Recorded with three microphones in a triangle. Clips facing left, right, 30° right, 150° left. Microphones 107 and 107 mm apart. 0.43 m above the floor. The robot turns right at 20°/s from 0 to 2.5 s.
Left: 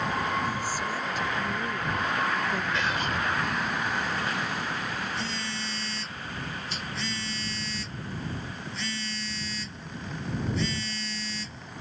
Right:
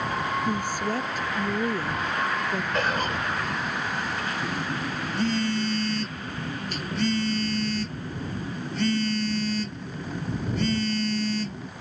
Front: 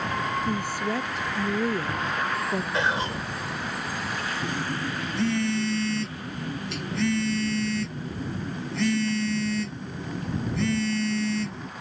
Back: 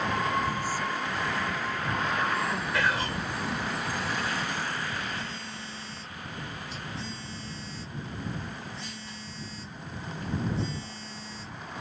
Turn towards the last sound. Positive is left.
turn(degrees=-50)